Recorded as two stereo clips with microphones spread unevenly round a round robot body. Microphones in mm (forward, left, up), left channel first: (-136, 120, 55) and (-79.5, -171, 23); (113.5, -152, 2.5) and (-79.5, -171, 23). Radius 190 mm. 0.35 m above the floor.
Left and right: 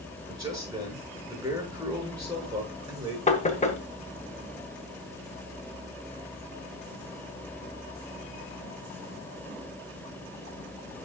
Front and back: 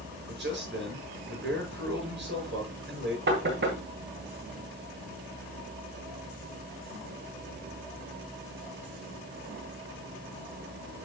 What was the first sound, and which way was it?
A man speaking, 155° right.